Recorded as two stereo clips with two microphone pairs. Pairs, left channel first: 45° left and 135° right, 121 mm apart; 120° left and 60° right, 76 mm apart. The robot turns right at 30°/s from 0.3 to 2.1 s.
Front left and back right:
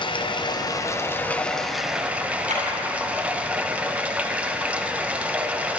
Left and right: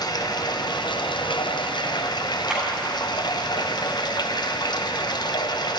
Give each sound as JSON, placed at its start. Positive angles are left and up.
{"t": 0.0, "sound": "running water", "azimuth_deg": 90, "distance_m": 0.8}
{"t": 2.5, "sound": "a clap", "azimuth_deg": -140, "distance_m": 6.0}